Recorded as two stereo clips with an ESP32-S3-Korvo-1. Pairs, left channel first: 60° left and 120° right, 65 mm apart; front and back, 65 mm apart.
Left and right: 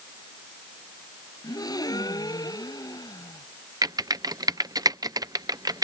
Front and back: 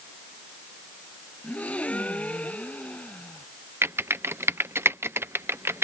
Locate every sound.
1.4 s a gasp: 70° left
3.8 s typing on a keyboard: 130° right